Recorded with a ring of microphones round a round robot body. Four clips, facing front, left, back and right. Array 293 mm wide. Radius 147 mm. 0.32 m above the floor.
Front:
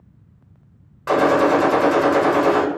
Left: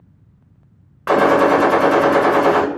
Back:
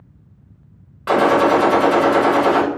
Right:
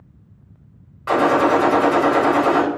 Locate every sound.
1.1 s a gunshot: 100° left, 1.1 m